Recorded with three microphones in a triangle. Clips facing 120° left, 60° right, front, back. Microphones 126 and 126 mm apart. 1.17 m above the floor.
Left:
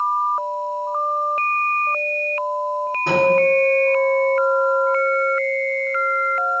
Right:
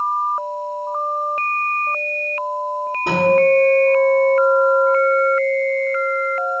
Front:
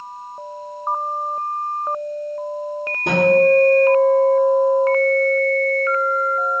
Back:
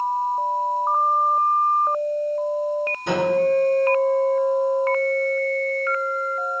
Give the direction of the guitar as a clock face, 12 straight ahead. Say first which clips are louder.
Right 2 dB, front 6 dB; 12 o'clock.